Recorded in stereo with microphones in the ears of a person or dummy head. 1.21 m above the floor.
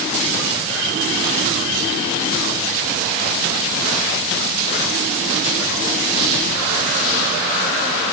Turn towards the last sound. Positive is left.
No sound to turn to.